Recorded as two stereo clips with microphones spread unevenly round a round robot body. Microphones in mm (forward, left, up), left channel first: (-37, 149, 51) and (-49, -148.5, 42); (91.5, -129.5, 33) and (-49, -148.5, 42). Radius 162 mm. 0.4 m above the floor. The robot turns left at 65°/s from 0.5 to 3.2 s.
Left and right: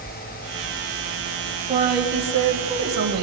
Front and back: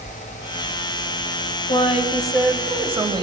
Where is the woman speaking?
20° right, 1.9 m; by 3.2 s 115° right, 1.9 m.